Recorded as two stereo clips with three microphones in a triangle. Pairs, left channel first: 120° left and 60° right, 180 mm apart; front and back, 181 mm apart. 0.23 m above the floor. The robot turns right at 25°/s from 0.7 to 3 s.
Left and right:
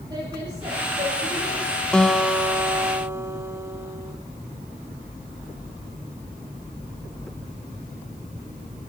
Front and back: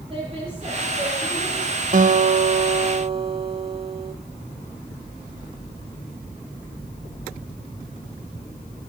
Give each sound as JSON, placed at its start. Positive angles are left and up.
{"t": 0.1, "sound": "a woman speaking", "azimuth_deg": -125, "distance_m": 6.0}
{"t": 1.9, "sound": "a guitar", "azimuth_deg": -155, "distance_m": 0.7}